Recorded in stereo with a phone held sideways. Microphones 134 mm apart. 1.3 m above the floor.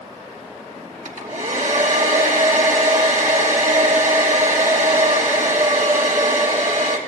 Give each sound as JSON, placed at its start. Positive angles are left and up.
{"t": 1.1, "sound": "a hair dryer", "side_deg": -70, "distance_m": 3.0}